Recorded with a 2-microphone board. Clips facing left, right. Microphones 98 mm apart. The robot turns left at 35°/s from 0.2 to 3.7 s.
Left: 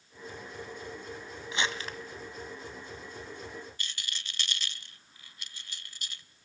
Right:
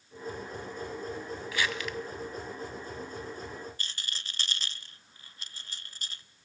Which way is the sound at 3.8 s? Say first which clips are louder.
Even; 35° right (ahead or behind).